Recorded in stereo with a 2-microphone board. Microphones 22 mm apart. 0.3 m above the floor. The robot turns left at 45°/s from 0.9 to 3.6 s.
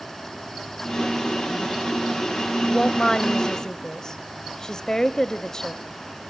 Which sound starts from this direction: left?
A woman speaking, at 2.6 s.